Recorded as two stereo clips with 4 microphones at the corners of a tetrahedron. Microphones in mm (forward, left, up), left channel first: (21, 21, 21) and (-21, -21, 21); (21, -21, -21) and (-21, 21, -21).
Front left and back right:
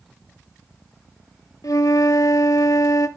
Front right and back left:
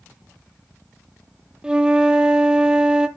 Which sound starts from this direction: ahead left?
A flute, at 1.6 s.